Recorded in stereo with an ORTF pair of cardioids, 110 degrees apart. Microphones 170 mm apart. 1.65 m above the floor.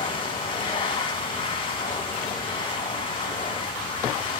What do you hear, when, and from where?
0.0 s a machine running: 30° left, 2.5 m